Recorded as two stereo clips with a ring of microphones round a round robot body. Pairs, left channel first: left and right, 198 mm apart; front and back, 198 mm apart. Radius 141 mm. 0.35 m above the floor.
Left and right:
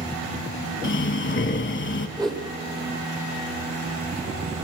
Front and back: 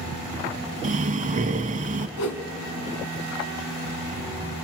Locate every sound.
0.8 s breathing: 125° left, 0.9 m
2.2 s a whoosh: 10° right, 1.1 m